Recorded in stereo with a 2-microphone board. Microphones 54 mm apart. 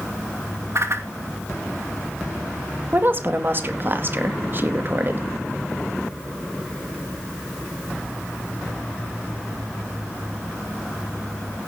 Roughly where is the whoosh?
Right.